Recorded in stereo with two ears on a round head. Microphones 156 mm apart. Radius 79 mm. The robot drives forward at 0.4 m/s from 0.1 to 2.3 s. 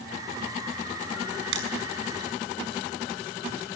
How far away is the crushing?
About 5 m.